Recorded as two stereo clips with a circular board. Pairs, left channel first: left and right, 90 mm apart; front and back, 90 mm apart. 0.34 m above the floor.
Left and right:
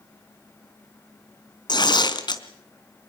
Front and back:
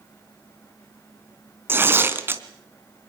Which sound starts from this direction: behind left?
Tearing paper, at 1.7 s.